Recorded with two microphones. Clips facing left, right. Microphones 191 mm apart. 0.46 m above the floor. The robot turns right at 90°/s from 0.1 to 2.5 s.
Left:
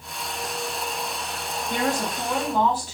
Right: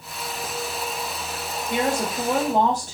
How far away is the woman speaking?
About 1.1 m.